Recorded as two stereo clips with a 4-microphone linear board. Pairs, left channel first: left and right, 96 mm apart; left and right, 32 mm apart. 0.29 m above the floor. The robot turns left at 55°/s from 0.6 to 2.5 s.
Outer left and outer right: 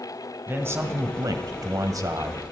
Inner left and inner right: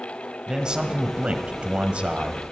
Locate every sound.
0.5 s a man speaking: 35° right, 1.3 m; by 2.4 s 140° right, 1.3 m